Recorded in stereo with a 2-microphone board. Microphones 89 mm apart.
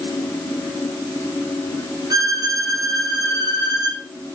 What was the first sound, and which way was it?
A violin, 45° right (ahead or behind).